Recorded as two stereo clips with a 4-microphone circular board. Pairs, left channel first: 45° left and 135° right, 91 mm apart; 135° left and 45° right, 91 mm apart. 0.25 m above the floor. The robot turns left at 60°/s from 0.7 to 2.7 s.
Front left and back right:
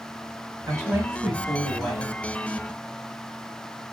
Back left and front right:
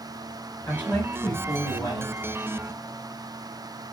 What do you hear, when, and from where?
0.7 s a woman speaking: 160° right, 1.2 m; by 2.1 s 115° left, 1.2 m